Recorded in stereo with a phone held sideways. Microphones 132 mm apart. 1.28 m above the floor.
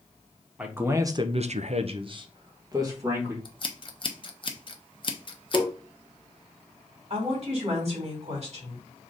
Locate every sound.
0.6 s a man speaking: 10° right (ahead or behind), 1.0 m; by 3.4 s 20° right (ahead or behind), 2.0 m
3.5 s scissors: 40° left (ahead or behind), 0.6 m
5.5 s tapping: 5° left (ahead or behind), 1.1 m
7.1 s a woman speaking: 50° right (ahead or behind), 2.5 m